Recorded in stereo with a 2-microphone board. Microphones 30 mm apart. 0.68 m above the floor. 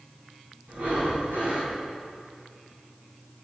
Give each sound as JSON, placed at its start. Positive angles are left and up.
{"t": 0.7, "sound": "breathing", "side_deg": -80, "distance_m": 6.0}